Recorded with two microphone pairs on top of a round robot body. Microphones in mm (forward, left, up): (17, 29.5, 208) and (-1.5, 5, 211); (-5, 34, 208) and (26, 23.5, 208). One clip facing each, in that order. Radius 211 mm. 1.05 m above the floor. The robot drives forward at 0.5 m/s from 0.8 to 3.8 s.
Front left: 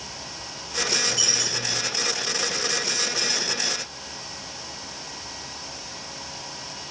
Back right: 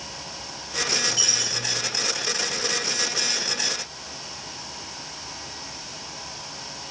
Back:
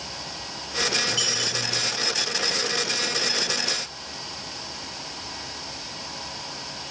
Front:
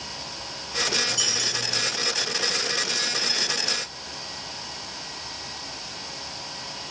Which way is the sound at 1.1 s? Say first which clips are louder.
Even, back 1 dB; 170° right.